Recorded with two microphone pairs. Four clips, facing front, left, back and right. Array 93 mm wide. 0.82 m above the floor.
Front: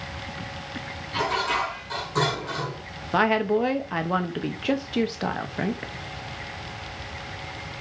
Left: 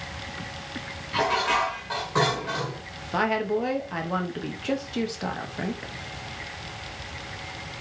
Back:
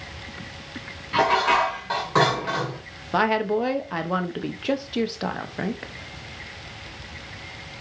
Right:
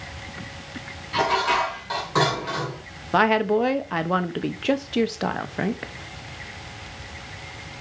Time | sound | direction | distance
1.1 | dishes clattering | 165° right | 2 m
3.1 | a woman speaking | 90° right | 0.8 m